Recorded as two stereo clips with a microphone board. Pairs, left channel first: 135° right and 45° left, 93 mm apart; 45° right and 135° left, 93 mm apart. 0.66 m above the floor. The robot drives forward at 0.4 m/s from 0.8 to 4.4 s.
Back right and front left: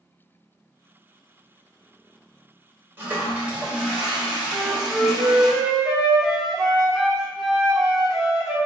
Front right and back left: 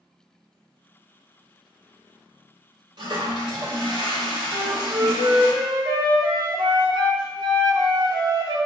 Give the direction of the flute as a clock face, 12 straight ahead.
8 o'clock.